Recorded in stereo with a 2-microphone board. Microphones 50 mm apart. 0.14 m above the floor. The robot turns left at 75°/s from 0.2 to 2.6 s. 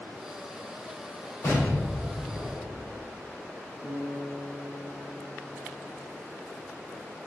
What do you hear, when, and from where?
1.4 s an explosion: 55° left, 4 m; by 3.0 s 30° right, 4 m
3.8 s a guitar: 65° right (ahead or behind), 4.5 m